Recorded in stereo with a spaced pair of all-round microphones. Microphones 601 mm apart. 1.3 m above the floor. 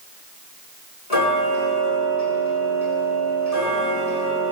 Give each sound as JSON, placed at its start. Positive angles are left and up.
{"t": 1.1, "sound": "ticking", "side_deg": 85, "distance_m": 10.0}